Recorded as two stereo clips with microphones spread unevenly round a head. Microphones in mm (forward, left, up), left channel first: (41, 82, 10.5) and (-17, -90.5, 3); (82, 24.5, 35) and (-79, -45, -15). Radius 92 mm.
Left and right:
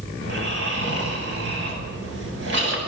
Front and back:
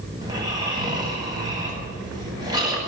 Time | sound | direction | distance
0.2 | snoring | 85° right | 9 m